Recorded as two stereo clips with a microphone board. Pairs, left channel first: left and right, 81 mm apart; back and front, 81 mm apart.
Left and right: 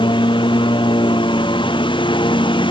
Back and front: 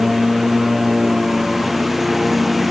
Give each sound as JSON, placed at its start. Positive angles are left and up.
{"t": 0.0, "sound": "a lawn mower", "azimuth_deg": 90}